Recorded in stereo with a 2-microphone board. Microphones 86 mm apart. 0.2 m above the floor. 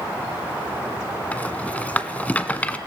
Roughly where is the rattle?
Centre.